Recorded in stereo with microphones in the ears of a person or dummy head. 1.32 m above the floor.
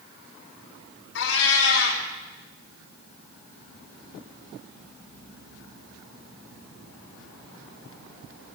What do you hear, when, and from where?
1.1 s a cat meowing: 80° left, 3.5 m